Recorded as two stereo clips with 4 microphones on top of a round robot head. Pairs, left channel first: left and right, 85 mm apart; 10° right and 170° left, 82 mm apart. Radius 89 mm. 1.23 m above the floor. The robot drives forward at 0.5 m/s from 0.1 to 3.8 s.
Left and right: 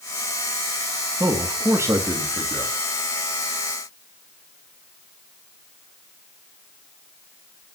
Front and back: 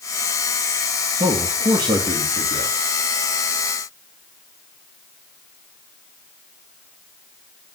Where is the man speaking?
145° right, 2 m; by 2.7 s 155° right, 3 m.